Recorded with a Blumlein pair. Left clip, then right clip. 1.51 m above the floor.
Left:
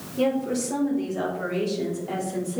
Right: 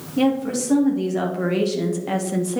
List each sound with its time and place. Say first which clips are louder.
0.2 s a woman speaking: right 3 dB; 50° right, 3 m; by 2.6 s 40° right, 1.2 m